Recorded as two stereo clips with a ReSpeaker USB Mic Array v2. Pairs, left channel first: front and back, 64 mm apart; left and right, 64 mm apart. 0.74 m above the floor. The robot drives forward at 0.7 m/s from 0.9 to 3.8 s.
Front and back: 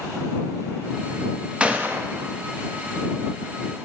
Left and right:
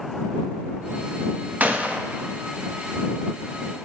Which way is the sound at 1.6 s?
125° right.